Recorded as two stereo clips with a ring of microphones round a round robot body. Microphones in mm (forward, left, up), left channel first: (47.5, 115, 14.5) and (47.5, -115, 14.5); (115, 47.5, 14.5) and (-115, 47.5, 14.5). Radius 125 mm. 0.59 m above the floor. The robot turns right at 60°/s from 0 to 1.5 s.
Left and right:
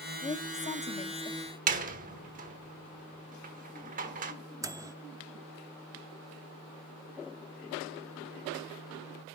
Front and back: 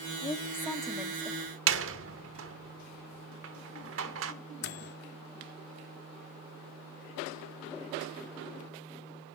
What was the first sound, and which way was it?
A woman speaking, 50° left.